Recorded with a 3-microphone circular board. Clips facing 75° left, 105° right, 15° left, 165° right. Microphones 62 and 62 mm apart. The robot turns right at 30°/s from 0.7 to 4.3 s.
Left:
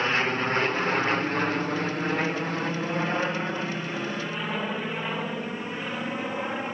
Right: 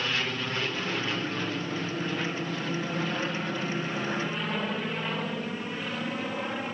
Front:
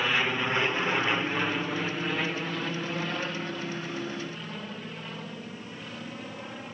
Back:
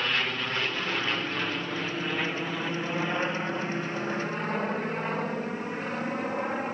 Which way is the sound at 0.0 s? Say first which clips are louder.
Left 6 dB, front 2 dB; 85° left.